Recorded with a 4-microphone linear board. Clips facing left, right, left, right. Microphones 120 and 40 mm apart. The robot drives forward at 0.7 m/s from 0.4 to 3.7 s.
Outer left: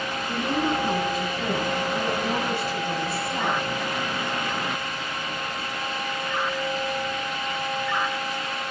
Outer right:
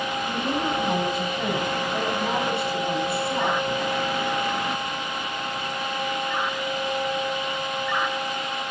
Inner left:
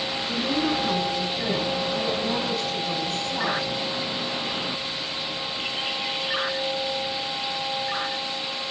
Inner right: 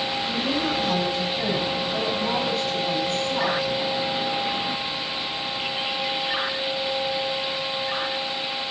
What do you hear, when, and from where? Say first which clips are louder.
0.3 s a woman speaking: outer left 3 dB, inner left 2 dB; 65° right (ahead or behind), 8.5 m; by 3.6 s 55° right (ahead or behind), 10 m